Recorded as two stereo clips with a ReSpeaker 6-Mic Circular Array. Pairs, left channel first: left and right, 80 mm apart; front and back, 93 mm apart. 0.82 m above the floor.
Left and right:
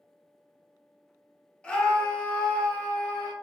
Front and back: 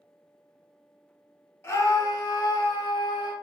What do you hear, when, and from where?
1.6 s a scream: 25° left, 1.1 m; by 3.3 s 20° left, 2 m